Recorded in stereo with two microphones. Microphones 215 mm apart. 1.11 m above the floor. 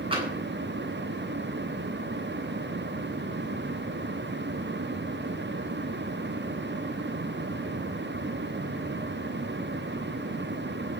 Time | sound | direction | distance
0.1 | tapping | 25° right (ahead or behind) | 9 m